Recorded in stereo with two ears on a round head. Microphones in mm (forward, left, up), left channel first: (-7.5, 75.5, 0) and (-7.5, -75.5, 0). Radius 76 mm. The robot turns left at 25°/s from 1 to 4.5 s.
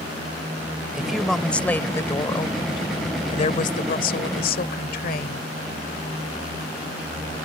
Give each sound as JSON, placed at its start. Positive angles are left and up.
{"t": 0.9, "sound": "a woman speaking", "azimuth_deg": -175}